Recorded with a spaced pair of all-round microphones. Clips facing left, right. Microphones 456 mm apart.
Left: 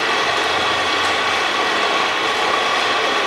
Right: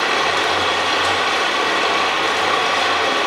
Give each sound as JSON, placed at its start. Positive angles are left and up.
{"t": 0.0, "sound": "running water", "side_deg": 0, "distance_m": 0.9}